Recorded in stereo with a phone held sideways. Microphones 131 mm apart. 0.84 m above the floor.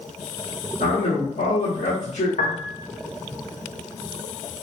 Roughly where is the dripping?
No dripping in this recording.